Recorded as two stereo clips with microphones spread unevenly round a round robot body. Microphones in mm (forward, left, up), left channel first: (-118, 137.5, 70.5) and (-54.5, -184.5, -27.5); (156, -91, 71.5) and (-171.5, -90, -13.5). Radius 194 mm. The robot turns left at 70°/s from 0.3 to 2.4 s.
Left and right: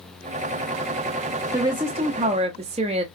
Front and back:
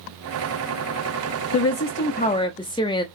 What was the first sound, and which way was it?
A woman speaking, 30° right.